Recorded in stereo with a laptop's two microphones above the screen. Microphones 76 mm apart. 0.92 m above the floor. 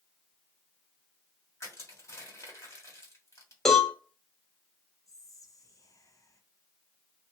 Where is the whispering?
45° left (ahead or behind), 0.5 m.